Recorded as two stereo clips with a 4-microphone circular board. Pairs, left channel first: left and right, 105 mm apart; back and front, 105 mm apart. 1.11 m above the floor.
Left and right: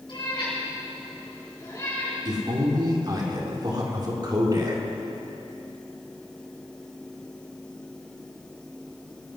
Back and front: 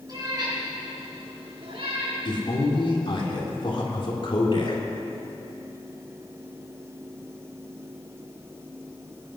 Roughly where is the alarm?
No alarm in this recording.